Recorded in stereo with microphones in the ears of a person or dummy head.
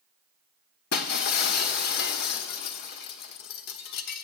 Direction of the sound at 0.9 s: 50° left (ahead or behind).